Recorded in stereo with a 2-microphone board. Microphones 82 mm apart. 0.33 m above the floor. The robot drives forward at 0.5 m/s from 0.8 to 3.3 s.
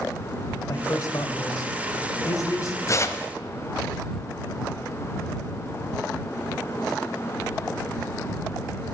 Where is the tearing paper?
40° left (ahead or behind), 0.6 m; by 3.3 s 30° left (ahead or behind), 0.8 m.